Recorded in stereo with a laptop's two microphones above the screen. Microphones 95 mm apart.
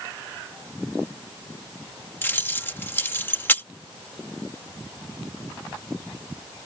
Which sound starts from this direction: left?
Keys jangling, at 2.2 s.